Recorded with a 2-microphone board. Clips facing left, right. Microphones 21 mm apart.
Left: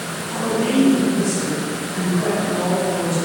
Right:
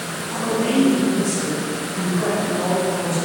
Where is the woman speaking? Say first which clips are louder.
Left 1 dB; 50° left (ahead or behind), 1.8 m; by 3.1 s 55° left (ahead or behind), 4 m.